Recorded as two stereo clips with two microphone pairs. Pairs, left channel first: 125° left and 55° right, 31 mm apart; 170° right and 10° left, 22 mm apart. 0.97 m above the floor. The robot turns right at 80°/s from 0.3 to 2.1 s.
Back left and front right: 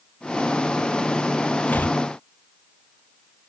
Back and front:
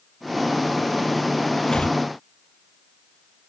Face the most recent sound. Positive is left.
turn(degrees=170)